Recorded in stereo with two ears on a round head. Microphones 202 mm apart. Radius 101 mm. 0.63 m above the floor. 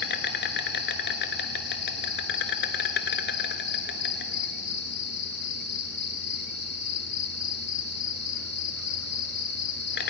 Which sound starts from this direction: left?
An insect, at 0.0 s.